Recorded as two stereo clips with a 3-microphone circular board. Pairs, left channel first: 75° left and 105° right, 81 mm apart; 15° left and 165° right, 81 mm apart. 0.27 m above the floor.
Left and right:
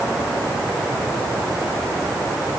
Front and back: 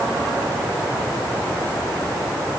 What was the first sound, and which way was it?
Only background noise.